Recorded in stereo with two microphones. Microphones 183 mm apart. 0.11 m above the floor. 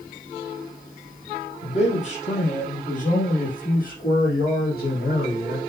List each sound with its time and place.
1.6 s a man speaking: 35° left (ahead or behind), 3.5 m; by 5.6 s 60° left (ahead or behind), 5 m